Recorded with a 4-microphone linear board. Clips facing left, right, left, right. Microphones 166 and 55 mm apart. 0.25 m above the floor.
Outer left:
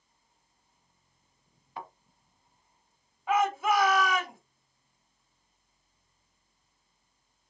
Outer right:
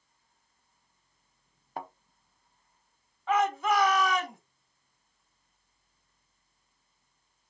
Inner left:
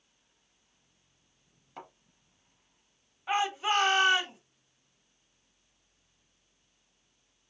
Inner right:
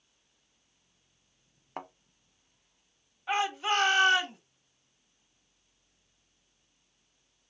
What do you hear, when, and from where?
1.8 s a thud: 50° right (ahead or behind), 0.7 m
3.3 s a shout: 10° left (ahead or behind), 1.6 m